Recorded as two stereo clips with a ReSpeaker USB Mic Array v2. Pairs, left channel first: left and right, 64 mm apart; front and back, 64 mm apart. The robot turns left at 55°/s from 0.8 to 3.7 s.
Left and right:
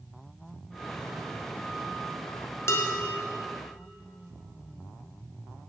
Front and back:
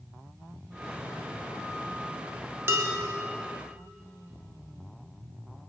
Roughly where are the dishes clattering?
Behind left.